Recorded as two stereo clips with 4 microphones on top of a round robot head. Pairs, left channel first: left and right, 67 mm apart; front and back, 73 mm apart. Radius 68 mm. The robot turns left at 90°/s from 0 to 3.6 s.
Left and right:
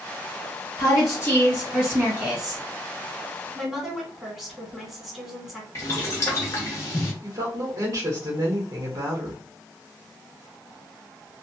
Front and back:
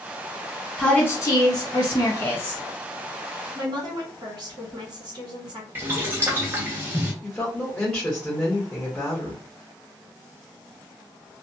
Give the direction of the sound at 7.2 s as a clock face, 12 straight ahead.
3 o'clock.